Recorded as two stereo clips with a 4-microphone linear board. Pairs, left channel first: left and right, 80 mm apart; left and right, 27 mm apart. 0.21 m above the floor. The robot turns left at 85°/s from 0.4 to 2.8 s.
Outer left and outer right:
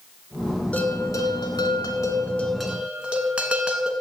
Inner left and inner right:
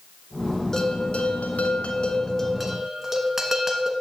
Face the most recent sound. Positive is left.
turn(degrees=-15)